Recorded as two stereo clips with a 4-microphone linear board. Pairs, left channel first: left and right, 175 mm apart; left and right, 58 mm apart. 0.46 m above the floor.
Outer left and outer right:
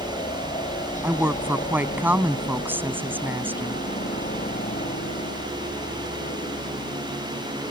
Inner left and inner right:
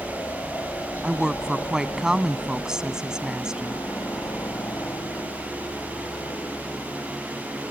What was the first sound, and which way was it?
A helicopter, 40° left (ahead or behind).